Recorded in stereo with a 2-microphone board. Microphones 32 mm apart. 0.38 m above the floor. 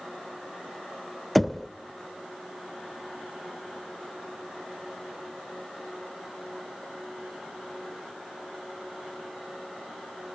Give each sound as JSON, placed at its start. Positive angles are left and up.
{"t": 1.4, "sound": "knocking", "side_deg": 0, "distance_m": 0.6}